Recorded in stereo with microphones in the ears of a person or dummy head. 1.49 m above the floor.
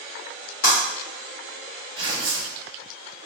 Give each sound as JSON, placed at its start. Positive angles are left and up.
{"t": 0.6, "sound": "breaking glass", "side_deg": 65, "distance_m": 1.9}
{"t": 2.0, "sound": "tearing paper", "side_deg": -25, "distance_m": 0.8}